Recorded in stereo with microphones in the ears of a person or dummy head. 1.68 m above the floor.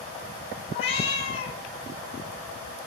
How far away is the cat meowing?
About 2.5 m.